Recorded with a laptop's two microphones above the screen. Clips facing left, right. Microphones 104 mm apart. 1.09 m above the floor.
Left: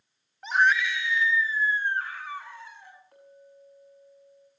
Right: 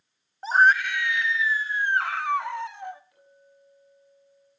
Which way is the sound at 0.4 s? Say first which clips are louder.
Right 4 dB; 35° right (ahead or behind).